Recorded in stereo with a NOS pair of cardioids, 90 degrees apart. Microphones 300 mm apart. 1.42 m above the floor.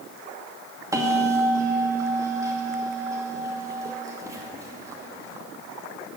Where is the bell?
10° right, 2.5 m.